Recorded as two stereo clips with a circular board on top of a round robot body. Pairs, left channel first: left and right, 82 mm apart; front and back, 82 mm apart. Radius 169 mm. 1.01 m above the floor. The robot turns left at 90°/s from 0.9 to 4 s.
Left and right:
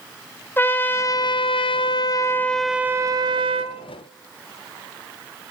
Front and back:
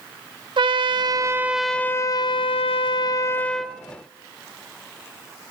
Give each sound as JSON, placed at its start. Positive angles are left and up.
{"t": 0.6, "sound": "a trumpet", "azimuth_deg": 155, "distance_m": 0.5}